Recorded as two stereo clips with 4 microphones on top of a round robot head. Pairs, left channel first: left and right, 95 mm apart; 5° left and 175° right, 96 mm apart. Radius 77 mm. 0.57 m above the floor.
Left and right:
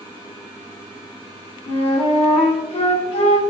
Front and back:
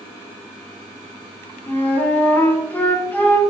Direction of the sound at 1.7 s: 80° left.